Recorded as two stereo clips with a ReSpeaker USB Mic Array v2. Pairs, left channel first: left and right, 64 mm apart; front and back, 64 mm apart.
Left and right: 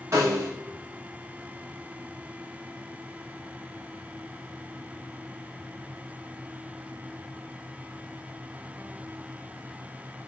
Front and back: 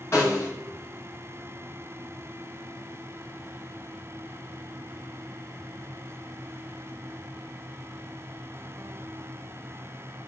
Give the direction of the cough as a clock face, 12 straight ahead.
I don't hear a cough.